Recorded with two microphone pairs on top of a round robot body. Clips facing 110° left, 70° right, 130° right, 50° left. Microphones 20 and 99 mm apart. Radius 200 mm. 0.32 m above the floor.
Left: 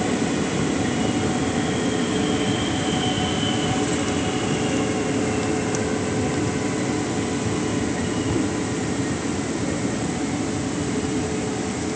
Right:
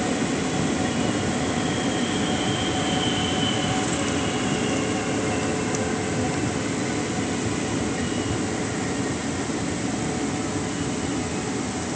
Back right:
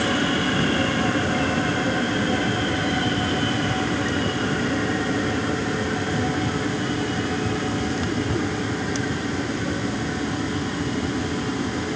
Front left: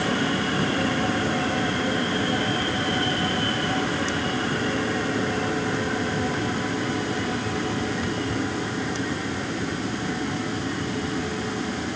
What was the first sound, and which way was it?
Only background noise.